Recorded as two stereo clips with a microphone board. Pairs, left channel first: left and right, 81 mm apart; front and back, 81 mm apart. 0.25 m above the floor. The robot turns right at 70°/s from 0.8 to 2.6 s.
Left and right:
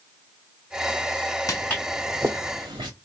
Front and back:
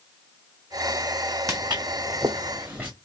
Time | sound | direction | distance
1.5 | footsteps | 135° left | 0.8 m